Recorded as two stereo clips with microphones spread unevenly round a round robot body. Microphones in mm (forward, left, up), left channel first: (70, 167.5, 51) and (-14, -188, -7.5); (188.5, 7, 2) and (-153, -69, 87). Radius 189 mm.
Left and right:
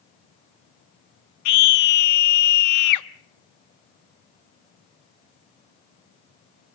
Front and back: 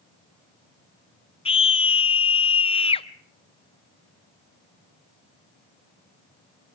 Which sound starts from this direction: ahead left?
A scream, at 1.4 s.